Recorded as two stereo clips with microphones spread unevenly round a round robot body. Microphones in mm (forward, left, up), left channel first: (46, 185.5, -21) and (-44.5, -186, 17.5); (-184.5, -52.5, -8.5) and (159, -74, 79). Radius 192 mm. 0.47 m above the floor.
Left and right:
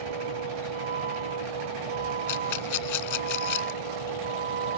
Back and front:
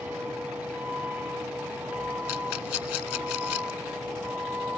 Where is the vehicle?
90° right.